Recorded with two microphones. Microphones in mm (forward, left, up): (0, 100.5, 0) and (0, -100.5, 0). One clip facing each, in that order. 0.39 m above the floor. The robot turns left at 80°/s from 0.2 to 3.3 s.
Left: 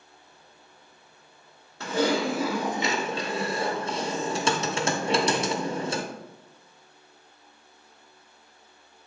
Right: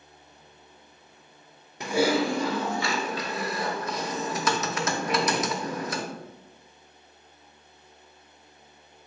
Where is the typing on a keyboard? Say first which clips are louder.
Right 1 dB; 15° right (ahead or behind), 0.5 m; by 6.0 s 25° left (ahead or behind), 0.5 m.